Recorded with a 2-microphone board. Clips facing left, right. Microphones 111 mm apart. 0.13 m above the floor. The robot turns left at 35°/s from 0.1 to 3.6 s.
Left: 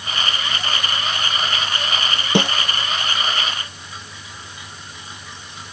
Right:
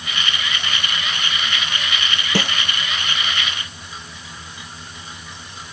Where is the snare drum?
20° left (ahead or behind); by 2.5 s 25° left (ahead or behind).